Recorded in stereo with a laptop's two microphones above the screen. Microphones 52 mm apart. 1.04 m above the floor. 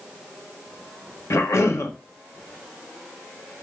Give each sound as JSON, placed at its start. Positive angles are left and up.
{"t": 1.3, "sound": "a cough", "side_deg": 60, "distance_m": 0.6}